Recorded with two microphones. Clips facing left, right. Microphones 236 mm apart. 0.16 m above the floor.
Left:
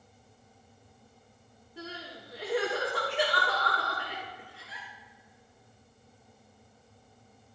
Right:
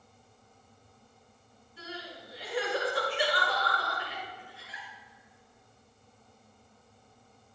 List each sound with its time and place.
1.8 s crying: 65° left (ahead or behind), 5 m